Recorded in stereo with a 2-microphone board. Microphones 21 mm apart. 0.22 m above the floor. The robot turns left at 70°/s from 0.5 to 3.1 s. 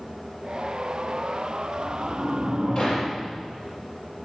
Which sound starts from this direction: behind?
A sliding door, at 1.8 s.